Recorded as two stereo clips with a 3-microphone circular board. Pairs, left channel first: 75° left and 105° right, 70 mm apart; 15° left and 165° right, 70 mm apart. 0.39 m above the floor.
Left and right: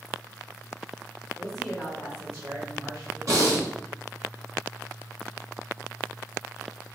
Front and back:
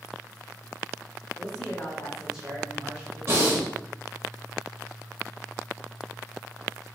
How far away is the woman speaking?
About 0.9 m.